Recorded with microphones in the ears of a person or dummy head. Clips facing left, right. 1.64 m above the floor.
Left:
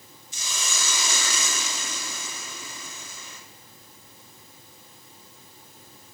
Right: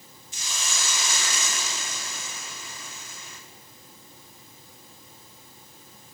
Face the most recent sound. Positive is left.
turn(degrees=80)